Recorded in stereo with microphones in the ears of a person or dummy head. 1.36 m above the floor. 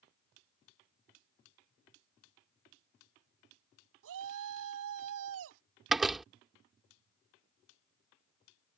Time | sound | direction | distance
4.0 | a shout | 80° right | ?
5.9 | a door slam | 5° right (ahead or behind) | ?